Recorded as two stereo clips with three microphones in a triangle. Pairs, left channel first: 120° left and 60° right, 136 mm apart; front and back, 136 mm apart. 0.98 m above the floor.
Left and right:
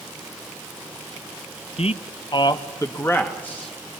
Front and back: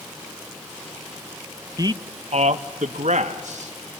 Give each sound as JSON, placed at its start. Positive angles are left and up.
{"t": 1.8, "sound": "a man speaking", "azimuth_deg": 125, "distance_m": 0.9}